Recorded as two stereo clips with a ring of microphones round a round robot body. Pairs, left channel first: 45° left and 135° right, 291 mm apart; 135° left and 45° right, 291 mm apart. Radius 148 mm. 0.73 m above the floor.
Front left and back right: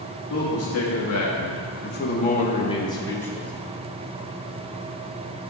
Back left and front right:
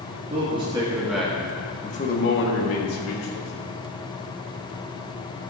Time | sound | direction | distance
0.3 | a man speaking | 20° left | 2.0 m